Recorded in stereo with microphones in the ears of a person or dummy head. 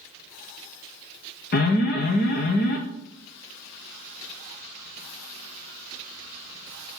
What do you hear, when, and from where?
1.5 s an alarm: 45° left (ahead or behind), 1.1 m